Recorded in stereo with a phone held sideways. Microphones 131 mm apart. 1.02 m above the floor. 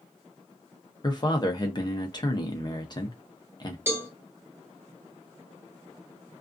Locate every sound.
1.0 s a man speaking: 35° left (ahead or behind), 0.7 m
3.9 s a cowbell: 15° right (ahead or behind), 1.1 m